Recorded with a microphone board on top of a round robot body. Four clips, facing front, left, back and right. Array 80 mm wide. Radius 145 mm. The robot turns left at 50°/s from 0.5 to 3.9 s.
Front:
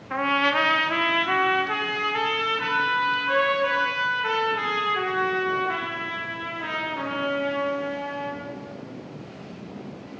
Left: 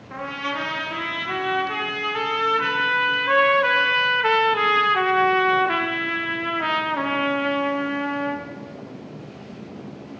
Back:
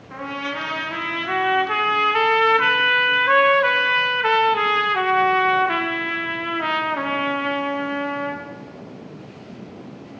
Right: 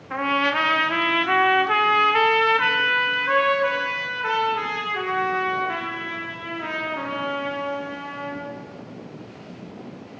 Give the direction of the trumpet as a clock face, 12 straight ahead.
1 o'clock.